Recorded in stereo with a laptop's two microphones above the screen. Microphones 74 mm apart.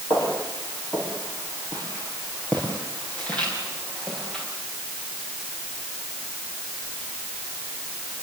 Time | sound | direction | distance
0.1 | footsteps | 40° left (ahead or behind) | 8.5 m